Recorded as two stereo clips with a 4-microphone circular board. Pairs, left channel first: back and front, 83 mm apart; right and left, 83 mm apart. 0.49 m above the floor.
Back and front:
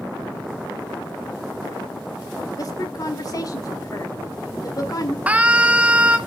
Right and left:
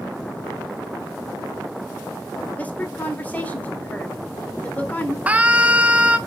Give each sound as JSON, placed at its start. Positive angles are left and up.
{"t": 2.6, "sound": "a woman speaking", "azimuth_deg": -155, "distance_m": 1.3}
{"t": 5.3, "sound": "a scream", "azimuth_deg": 50, "distance_m": 0.7}